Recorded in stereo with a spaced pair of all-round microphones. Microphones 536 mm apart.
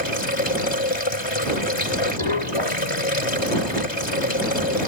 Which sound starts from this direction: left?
Running water, at 0.0 s.